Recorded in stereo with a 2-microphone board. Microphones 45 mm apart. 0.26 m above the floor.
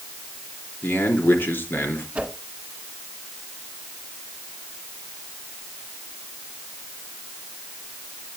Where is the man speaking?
50° left (ahead or behind), 3.5 m.